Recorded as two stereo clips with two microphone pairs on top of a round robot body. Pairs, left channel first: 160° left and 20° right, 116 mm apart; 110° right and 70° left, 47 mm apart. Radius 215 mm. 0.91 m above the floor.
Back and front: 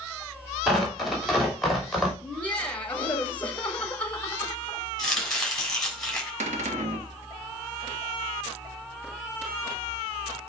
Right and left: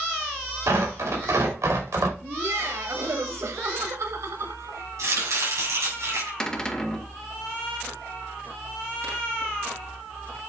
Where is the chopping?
75° left, 3.5 m.